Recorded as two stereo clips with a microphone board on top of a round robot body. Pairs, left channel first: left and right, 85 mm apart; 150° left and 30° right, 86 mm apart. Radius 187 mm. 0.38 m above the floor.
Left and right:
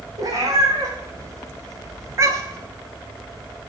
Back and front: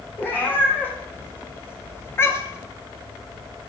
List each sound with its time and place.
0.2 s a cat meowing: 140° right, 3 m; by 2.7 s 150° right, 0.6 m